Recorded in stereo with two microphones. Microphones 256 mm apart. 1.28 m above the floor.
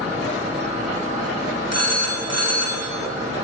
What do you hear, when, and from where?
1.7 s a phone ringing: 75° right (ahead or behind), 0.9 m